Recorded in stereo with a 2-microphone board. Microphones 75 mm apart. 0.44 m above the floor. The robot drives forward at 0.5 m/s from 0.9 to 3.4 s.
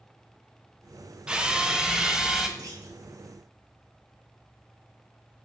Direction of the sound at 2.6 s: 50° right (ahead or behind).